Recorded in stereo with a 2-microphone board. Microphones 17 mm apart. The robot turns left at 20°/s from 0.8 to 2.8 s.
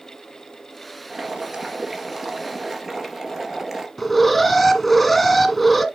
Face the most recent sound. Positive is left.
turn(degrees=5)  # may be behind; listen again after turning